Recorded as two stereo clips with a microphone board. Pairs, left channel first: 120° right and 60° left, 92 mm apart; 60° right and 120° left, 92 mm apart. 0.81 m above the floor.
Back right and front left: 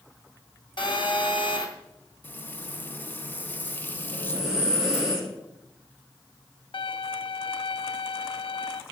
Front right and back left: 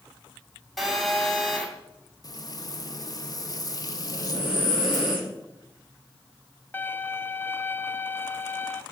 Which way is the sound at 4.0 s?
20° right.